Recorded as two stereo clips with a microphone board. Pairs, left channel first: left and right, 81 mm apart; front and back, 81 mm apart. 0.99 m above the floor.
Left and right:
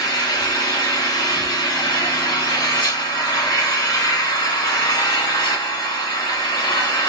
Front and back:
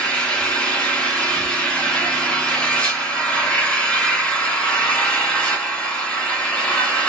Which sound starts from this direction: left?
An engine running, at 0.0 s.